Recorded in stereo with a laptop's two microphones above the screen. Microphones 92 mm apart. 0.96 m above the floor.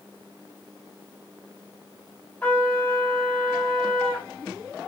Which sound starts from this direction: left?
A trumpet, at 2.4 s.